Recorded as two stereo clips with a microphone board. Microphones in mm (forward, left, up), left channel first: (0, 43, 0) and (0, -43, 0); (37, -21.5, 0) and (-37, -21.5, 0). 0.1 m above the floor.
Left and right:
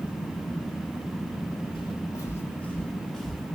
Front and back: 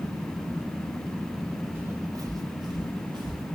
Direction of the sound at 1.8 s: 115° left.